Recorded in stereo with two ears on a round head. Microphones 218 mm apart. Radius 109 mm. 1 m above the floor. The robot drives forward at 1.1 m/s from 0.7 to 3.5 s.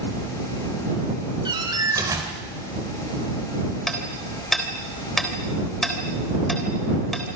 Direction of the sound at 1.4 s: 20° right (ahead or behind).